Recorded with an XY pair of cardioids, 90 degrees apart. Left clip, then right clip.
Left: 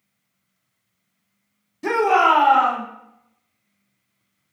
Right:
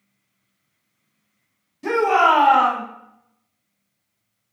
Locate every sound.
1.8 s a shout: 45° left, 0.8 m; by 2.8 s 65° right, 1.1 m